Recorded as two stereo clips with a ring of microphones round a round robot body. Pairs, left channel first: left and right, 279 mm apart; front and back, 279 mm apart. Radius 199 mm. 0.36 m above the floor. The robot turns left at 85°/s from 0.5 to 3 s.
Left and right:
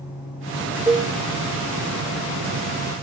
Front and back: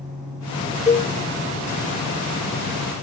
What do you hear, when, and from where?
0.9 s a cowbell: 25° right, 0.8 m; by 1.1 s 45° right, 0.8 m